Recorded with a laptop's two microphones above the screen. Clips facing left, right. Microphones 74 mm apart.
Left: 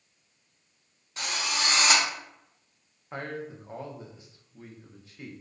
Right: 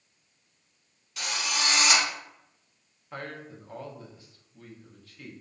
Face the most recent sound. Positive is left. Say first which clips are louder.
# left 3 dB
turn(degrees=20)  # may be behind; listen again after turning